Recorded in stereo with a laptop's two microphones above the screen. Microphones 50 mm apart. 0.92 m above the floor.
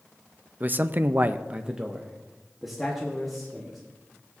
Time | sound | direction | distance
0.6 | a man speaking | 35° right (ahead or behind) | 0.7 m